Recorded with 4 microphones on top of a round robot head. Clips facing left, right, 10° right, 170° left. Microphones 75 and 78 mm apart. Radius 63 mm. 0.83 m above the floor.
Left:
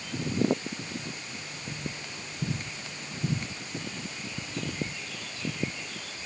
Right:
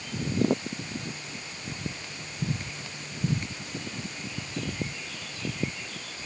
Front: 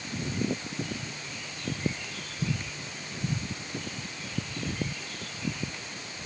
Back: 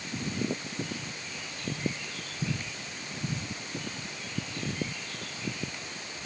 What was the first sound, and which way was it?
Only background noise.